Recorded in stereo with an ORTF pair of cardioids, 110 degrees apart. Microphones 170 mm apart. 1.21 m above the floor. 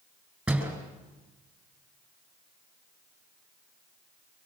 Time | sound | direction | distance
0.5 | a door slam | 10° right | 7 m